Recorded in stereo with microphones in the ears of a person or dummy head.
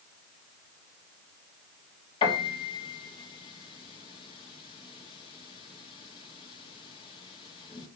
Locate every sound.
2.2 s a piano: 35° left (ahead or behind), 2 m